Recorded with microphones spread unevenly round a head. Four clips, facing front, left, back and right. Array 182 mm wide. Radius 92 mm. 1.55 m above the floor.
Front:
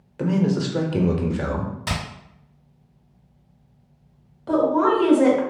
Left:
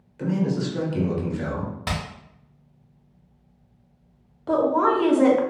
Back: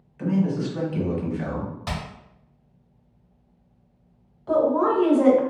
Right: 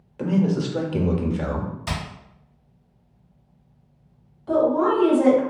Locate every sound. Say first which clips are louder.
0.2 s a man speaking: right 3 dB, front 2 dB; 30° right, 0.8 m
1.9 s hammering: left 4 dB, front 4 dB; 75° left, 1.2 m
4.5 s a woman speaking: right 1 dB, front 1 dB; 50° left, 1.1 m